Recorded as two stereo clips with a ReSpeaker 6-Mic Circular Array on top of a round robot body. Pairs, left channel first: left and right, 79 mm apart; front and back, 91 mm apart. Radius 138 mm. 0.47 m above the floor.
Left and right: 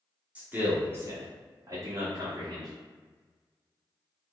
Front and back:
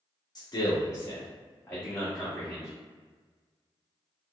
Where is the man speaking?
20° right, 1.1 m; by 2.7 s 90° right, 1.5 m.